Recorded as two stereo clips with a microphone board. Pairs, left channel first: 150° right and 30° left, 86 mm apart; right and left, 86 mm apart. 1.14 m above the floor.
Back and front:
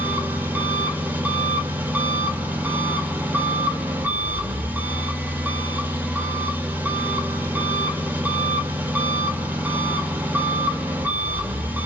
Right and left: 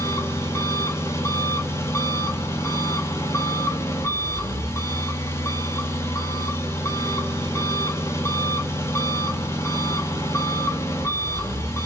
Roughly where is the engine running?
Ahead right.